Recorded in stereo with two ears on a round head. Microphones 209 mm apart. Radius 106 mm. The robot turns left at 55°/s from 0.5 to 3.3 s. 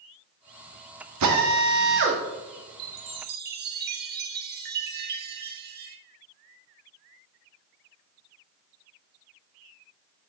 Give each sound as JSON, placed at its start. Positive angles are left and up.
{"t": 1.2, "sound": "a drill", "azimuth_deg": -80, "distance_m": 1.5}
{"t": 2.8, "sound": "a chime", "side_deg": -70, "distance_m": 1.2}